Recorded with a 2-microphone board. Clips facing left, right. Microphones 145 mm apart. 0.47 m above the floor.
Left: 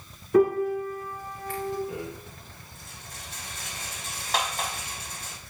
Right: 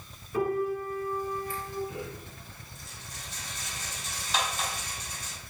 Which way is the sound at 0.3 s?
80° left.